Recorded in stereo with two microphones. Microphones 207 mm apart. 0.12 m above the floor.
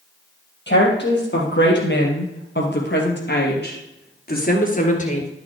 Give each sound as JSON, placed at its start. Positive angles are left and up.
{"t": 0.7, "sound": "a woman speaking", "side_deg": 60, "distance_m": 3.5}